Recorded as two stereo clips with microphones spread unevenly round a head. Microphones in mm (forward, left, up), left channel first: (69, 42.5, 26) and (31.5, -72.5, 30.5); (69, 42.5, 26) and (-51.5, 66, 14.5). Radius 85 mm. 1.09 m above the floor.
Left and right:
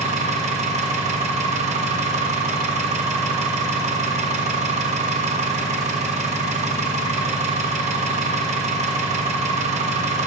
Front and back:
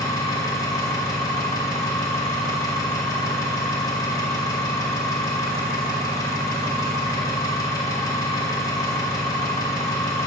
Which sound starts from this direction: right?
An engine running, at 0.0 s.